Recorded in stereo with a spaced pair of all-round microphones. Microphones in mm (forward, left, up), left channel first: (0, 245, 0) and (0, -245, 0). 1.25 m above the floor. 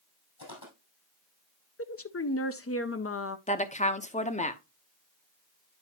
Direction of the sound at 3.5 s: 15° left (ahead or behind).